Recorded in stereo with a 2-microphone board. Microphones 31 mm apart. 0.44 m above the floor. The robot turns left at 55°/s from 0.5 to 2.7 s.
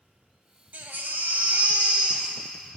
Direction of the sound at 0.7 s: 70° right.